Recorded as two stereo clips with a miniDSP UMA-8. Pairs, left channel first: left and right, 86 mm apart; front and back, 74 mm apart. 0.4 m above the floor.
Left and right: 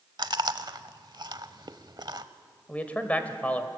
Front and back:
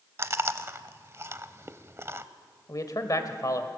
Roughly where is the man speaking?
Ahead.